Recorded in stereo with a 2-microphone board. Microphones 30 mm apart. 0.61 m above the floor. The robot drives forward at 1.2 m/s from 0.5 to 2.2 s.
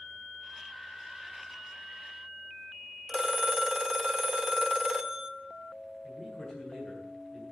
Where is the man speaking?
30° left (ahead or behind), 9 m.